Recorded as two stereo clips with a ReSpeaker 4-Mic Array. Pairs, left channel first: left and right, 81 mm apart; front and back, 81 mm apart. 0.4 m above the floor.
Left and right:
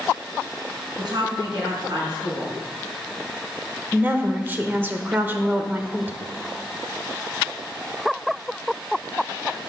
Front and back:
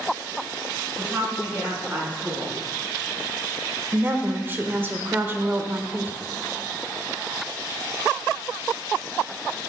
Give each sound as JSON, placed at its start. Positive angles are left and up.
{"t": 1.0, "sound": "a woman speaking", "azimuth_deg": -110, "distance_m": 5.5}
{"t": 3.9, "sound": "a woman speaking", "azimuth_deg": -135, "distance_m": 1.0}